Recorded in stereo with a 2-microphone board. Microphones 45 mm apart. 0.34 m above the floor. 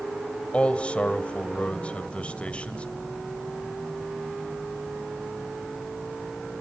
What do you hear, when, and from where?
0.5 s a man speaking: 30° left (ahead or behind), 1.9 m